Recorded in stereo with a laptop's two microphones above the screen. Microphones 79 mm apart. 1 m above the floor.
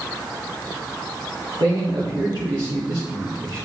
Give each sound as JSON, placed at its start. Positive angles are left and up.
{"t": 1.6, "sound": "a man speaking", "side_deg": -75, "distance_m": 2.0}